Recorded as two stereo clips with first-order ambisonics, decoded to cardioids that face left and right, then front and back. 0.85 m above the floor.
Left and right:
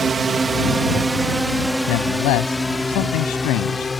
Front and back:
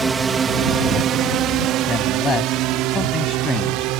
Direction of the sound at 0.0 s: 125° right.